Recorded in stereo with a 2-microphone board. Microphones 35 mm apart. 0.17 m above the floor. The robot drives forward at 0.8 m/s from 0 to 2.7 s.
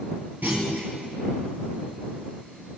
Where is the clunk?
60° right (ahead or behind), 3.5 m; by 0.9 s 65° right (ahead or behind), 3.5 m.